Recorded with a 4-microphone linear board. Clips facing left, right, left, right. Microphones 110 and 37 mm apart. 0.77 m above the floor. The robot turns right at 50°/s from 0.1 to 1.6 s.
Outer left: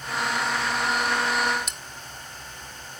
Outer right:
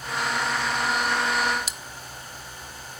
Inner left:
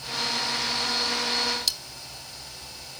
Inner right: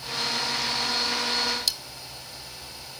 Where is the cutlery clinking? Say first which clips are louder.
Outer right 1 dB, even; 5° right (ahead or behind).